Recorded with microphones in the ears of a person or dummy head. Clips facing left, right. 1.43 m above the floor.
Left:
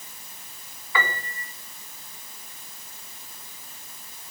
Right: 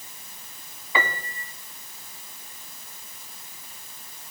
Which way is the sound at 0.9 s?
15° right (ahead or behind).